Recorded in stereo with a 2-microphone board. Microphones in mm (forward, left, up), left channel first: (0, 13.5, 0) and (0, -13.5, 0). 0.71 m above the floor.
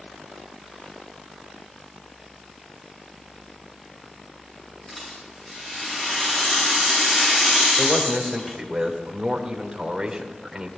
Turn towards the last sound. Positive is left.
turn(degrees=-20)  # may be behind; listen again after turning